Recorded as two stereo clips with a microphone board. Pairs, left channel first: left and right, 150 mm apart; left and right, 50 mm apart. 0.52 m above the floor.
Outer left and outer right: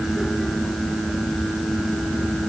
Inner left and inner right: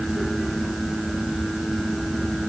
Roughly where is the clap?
No clap in this recording.